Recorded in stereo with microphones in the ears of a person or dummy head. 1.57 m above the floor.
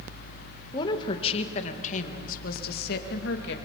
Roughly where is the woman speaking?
Left.